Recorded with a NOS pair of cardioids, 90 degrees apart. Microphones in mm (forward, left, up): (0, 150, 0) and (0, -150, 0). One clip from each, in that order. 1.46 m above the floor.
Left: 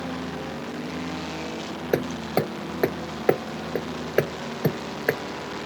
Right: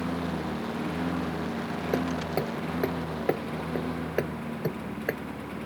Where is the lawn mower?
30° right; by 5.7 s 20° right.